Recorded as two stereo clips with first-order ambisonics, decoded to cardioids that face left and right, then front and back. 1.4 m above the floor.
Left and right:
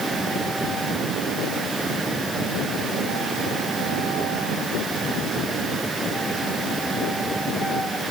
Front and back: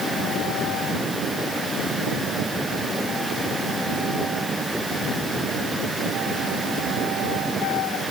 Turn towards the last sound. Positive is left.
No sound to turn to.